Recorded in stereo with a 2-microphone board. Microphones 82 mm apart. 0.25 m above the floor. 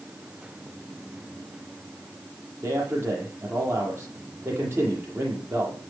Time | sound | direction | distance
2.6 | a man speaking | 35° right (ahead or behind) | 10 m